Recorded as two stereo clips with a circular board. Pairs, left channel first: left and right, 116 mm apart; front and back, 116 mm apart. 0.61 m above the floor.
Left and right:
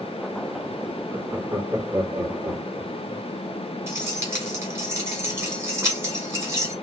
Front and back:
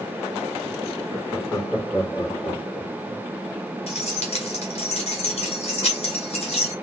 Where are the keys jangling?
20° right, 1.9 m.